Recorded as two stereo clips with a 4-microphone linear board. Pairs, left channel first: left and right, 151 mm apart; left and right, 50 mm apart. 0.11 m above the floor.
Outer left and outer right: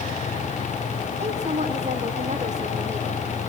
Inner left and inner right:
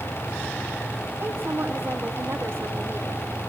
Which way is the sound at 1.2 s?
50° right (ahead or behind).